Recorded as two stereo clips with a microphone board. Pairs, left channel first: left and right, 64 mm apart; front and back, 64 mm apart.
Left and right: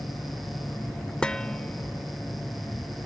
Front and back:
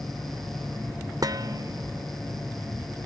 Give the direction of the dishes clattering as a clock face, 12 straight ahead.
6 o'clock.